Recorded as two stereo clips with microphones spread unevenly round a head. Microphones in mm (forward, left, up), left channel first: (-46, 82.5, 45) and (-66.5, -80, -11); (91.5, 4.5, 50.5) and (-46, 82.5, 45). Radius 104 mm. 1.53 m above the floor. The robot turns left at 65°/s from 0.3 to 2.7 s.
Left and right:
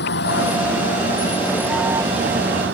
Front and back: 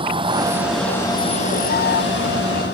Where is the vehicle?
90° left; by 2.8 s 70° right.